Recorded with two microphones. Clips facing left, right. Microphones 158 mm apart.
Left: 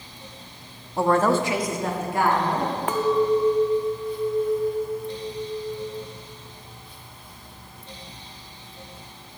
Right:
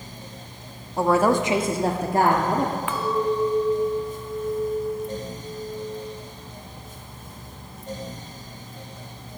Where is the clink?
40° left (ahead or behind), 0.6 m.